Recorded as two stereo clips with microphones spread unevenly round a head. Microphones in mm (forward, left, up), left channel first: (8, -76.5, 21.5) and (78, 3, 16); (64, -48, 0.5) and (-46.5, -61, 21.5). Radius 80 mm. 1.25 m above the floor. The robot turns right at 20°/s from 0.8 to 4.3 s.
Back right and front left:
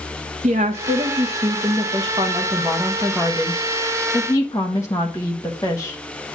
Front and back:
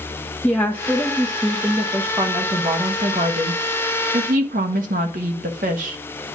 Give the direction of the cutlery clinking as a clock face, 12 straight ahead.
I don't hear cutlery clinking.